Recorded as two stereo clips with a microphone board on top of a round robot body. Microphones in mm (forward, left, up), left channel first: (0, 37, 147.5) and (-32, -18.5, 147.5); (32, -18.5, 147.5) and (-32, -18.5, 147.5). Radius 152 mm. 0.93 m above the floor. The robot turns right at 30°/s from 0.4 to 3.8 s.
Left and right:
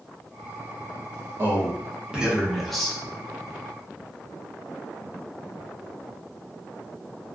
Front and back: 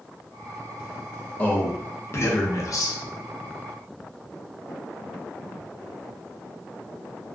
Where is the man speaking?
65° right, 0.7 m; by 3.0 s 20° right, 0.7 m.